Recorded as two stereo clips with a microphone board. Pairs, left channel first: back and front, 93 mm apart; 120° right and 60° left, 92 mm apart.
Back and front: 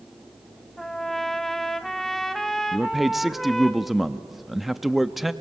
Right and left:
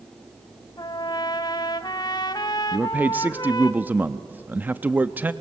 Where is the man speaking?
90° left, 0.5 m.